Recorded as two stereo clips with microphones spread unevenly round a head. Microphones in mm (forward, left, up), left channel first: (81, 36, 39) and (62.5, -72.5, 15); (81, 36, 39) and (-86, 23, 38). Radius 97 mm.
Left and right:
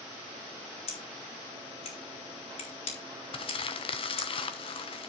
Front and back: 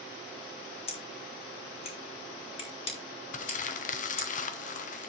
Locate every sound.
0.9 s scissors: 60° left, 4 m
3.3 s crumpling: 50° left, 1.1 m